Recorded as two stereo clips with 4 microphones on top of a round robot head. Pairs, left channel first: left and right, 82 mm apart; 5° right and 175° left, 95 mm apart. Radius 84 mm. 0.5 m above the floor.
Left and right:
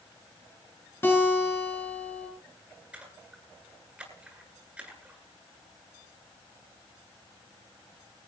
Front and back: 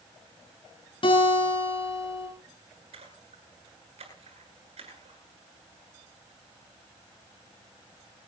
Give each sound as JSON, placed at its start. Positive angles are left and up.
{"t": 1.0, "sound": "a guitar", "azimuth_deg": 20, "distance_m": 7.5}
{"t": 2.9, "sound": "a splash", "azimuth_deg": -165, "distance_m": 9.5}